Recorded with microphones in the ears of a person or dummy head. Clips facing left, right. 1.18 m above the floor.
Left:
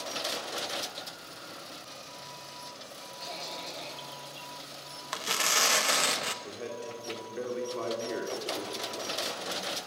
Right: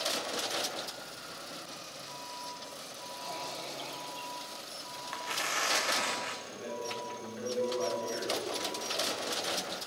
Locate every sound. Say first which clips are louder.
3.2 s a cough: even; 30° left (ahead or behind), 6.5 m
5.1 s tearing paper: left 5 dB; 45° left (ahead or behind), 1.1 m
6.4 s a man speaking: left 1 dB; 50° left (ahead or behind), 4 m